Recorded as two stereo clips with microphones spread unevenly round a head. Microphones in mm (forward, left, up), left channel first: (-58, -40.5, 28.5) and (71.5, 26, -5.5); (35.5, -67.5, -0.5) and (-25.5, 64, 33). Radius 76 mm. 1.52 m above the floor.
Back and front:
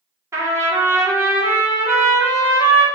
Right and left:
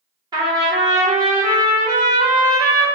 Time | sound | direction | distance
0.3 | a trumpet | 110° left | 1.0 m